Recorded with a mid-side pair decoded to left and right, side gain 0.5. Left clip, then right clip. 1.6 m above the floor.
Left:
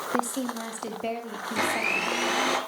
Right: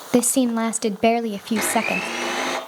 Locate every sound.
0.1 s a woman speaking: 70° right, 0.7 m
1.6 s a blender: 10° right, 3.5 m